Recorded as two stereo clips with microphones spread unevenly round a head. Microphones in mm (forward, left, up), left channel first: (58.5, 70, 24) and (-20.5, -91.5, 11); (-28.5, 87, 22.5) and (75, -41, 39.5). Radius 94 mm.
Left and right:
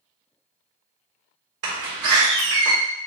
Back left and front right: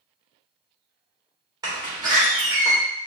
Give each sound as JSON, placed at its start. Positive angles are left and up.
{"t": 1.6, "sound": "a door slam", "azimuth_deg": -125, "distance_m": 1.6}